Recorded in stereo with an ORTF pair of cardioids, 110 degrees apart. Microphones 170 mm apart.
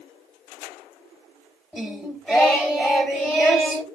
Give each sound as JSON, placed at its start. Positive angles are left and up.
{"t": 1.7, "sound": "singing", "azimuth_deg": 0, "distance_m": 3.0}